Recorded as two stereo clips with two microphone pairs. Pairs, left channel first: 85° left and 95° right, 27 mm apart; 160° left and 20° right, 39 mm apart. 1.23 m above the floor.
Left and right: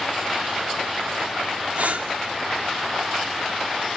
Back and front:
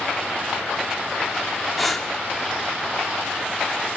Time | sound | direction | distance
1.8 | breathing | 115° right | 2.5 m